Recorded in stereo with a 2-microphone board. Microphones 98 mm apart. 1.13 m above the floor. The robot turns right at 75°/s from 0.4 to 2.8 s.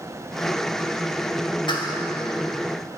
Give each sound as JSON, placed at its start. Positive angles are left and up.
{"t": 1.7, "sound": "a clap", "side_deg": 55, "distance_m": 3.0}